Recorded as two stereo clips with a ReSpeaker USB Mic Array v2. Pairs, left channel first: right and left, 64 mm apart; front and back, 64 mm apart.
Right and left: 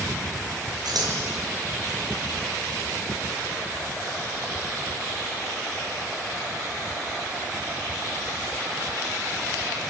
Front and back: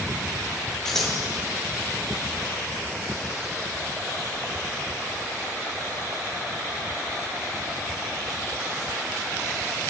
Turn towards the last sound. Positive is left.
turn(degrees=85)